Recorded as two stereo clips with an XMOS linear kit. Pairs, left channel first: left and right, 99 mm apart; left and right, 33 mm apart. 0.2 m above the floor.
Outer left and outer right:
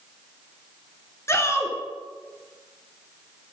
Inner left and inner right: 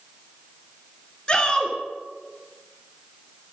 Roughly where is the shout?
Left.